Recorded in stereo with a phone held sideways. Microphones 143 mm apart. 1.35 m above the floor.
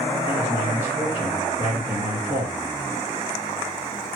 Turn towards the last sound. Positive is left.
turn(degrees=-65)  # may be behind; listen again after turning